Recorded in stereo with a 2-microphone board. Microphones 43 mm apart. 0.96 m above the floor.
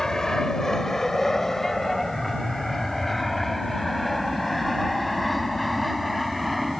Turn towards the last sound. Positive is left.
turn(degrees=0)  # may be behind; listen again after turning